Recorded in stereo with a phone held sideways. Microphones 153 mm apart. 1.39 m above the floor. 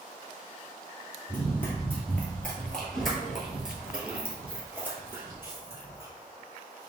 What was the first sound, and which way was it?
Running footsteps, 15° left (ahead or behind).